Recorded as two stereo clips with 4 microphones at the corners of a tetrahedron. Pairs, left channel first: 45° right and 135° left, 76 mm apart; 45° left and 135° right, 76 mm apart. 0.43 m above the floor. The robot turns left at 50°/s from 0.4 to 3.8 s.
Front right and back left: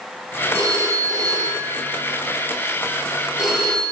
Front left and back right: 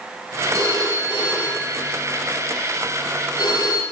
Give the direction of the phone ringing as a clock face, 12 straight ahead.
6 o'clock.